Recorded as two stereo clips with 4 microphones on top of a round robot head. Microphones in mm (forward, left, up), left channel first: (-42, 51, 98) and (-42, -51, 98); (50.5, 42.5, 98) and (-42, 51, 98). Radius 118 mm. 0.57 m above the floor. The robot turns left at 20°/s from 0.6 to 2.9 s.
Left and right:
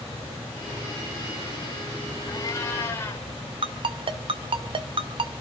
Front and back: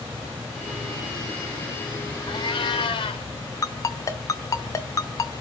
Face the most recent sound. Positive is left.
turn(degrees=-60)